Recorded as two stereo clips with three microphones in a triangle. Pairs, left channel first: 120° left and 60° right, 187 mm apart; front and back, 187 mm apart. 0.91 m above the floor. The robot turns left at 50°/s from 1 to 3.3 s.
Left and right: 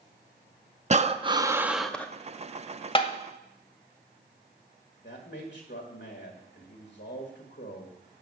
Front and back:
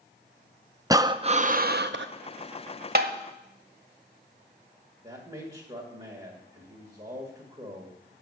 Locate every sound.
0.9 s breathing: 105° right, 0.5 m; by 2.1 s 160° right, 0.5 m
3.0 s tapping: 175° left, 1.0 m; by 3.1 s 165° left, 1.0 m
5.0 s a man speaking: 125° left, 1.9 m